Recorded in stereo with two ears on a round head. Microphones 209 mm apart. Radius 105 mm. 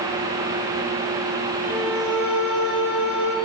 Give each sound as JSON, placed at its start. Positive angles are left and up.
{"t": 1.6, "sound": "a violin", "side_deg": -5, "distance_m": 5.5}